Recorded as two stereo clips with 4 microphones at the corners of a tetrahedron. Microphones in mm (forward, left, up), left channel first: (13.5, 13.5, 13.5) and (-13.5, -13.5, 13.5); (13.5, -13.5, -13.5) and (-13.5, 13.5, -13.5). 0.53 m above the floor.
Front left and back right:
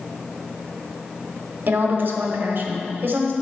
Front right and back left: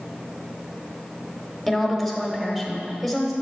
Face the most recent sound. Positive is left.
turn(degrees=-140)